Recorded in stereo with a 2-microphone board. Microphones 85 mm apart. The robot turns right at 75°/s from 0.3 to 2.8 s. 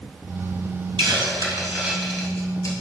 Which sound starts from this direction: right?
A hiss, at 1.0 s.